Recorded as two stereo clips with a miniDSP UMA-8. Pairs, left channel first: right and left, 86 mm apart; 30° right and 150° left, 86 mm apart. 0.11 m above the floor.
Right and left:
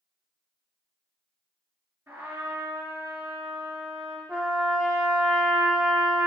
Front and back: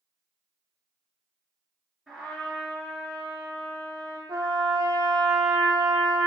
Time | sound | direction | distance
2.1 | a trumpet | 45° left | 1.3 m
4.3 | a trumpet | 170° left | 0.7 m